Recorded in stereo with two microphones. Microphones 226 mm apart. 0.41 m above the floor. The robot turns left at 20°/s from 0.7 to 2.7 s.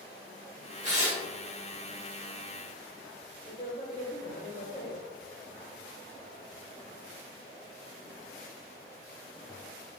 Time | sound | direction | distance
0.8 | tearing paper | 35° right (ahead or behind) | 1.6 m
3.5 | a man speaking | 30° left (ahead or behind) | 1.5 m